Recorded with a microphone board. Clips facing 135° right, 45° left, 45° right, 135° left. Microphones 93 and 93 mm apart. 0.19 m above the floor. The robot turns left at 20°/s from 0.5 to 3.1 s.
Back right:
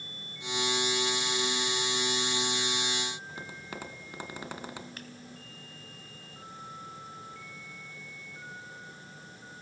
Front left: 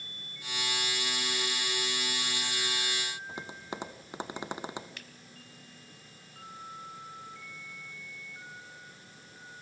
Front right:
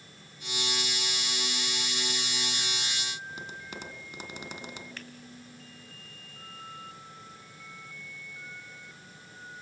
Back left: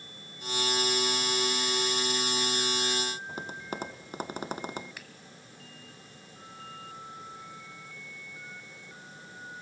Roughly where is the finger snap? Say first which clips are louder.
Back right 5 dB, front right 3 dB; behind right.